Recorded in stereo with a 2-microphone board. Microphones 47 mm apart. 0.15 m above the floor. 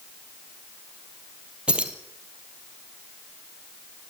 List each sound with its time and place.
1.7 s keys jangling: 25° right (ahead or behind), 2.5 m